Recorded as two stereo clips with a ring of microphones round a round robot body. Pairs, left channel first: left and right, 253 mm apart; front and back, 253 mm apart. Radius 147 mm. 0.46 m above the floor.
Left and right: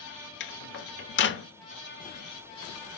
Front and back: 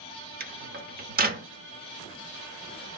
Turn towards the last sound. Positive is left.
turn(degrees=130)